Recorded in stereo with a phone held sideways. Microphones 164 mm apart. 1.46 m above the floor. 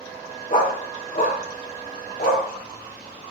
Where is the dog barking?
45° left (ahead or behind), 1.7 m; by 2.5 s 55° left (ahead or behind), 3 m.